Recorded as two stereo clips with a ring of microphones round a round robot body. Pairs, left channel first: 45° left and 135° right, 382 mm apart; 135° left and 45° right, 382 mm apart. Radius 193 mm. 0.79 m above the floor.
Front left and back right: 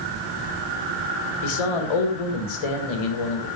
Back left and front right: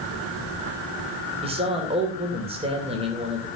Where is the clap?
No clap in this recording.